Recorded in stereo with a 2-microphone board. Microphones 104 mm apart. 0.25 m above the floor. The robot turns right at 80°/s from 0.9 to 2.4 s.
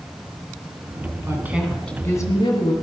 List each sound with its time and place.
1.3 s a woman speaking: 35° right, 2.5 m; by 2.7 s 55° left, 2.5 m